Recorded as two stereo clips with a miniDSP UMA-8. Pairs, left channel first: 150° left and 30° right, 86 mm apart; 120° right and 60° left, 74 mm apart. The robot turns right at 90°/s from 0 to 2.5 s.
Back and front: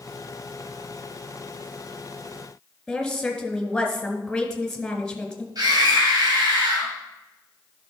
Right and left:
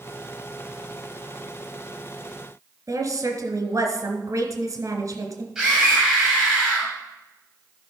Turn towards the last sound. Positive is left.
turn(degrees=-20)